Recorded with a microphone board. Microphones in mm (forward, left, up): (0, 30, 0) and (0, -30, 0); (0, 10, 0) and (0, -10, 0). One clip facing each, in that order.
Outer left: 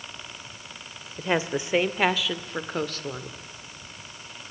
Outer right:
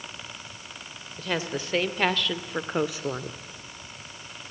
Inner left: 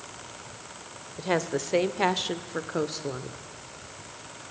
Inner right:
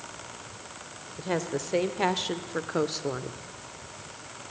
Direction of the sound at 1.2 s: 25° left (ahead or behind).